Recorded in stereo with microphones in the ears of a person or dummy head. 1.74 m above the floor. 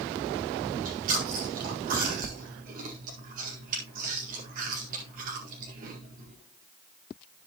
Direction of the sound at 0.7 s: 50° right (ahead or behind).